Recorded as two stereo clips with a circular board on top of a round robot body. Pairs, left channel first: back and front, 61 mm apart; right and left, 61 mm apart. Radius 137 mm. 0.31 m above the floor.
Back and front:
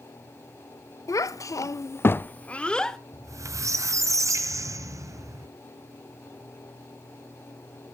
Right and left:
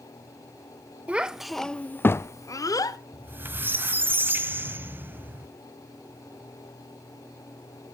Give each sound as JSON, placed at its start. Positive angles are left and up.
{"t": 1.1, "sound": "a child speaking", "azimuth_deg": 160, "distance_m": 0.7}
{"t": 3.1, "sound": "a squeak", "azimuth_deg": 30, "distance_m": 1.2}